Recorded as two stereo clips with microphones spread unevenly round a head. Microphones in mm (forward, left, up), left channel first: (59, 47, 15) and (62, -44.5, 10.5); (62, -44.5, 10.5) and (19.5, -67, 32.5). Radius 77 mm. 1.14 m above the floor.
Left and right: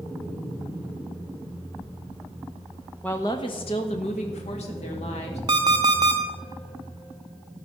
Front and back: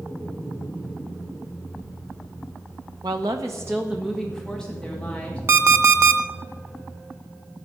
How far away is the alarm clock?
About 0.7 m.